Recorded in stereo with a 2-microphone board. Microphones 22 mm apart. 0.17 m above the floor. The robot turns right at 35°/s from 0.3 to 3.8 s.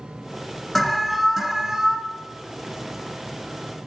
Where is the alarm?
160° left, 1.8 m; by 2.0 s 160° right, 1.8 m.